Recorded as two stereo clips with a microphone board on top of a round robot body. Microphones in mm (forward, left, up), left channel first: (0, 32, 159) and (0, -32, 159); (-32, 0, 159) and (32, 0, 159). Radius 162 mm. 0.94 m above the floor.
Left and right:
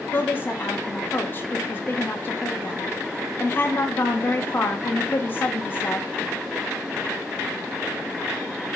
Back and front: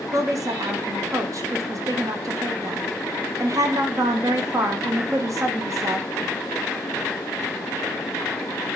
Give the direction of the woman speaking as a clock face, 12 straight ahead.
11 o'clock.